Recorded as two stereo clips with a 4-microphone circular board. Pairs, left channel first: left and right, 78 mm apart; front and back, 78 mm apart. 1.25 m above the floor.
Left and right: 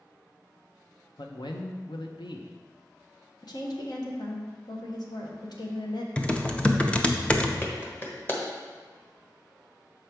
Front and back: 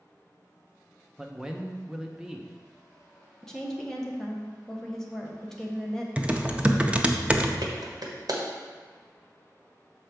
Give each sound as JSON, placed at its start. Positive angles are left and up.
{"t": 1.2, "sound": "a man speaking", "azimuth_deg": 95, "distance_m": 0.8}
{"t": 3.4, "sound": "a woman speaking", "azimuth_deg": 80, "distance_m": 1.2}
{"t": 6.2, "sound": "typing on a keyboard", "azimuth_deg": 135, "distance_m": 0.5}
{"t": 7.6, "sound": "a clap", "azimuth_deg": 150, "distance_m": 1.3}